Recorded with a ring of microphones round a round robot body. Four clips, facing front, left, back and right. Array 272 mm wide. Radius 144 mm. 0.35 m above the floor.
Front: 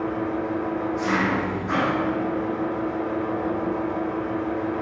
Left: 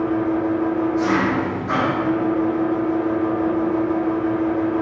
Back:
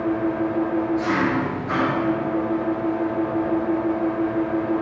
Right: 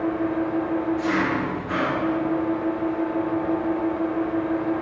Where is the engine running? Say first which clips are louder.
Left 4 dB, back 4 dB; 85° left, 8.5 m.